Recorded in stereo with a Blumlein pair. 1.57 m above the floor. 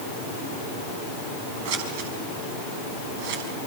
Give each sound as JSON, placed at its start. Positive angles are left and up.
{"t": 1.6, "sound": "scissors", "azimuth_deg": -50, "distance_m": 5.0}